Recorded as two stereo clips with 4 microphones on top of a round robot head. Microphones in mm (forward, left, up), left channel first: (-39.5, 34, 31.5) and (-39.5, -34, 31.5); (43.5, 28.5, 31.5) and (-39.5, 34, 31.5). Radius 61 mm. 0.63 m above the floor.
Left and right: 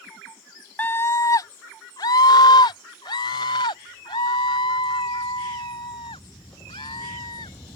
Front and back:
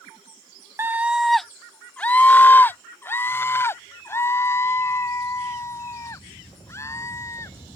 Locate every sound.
0.8 s a scream: 135° left; by 7.5 s 55° left